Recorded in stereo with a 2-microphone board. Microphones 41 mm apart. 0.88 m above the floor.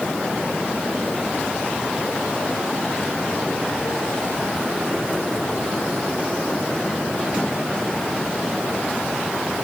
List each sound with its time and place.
Only background noise.